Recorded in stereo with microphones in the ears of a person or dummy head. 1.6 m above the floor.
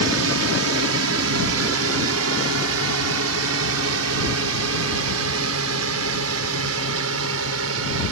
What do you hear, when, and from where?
0.0 s a drone: 70° right (ahead or behind); by 8.1 s 80° right